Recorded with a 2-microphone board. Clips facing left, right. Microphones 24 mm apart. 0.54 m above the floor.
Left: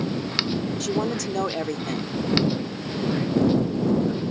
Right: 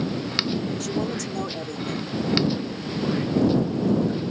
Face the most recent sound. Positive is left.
turn(degrees=30)  # may be behind; listen again after turning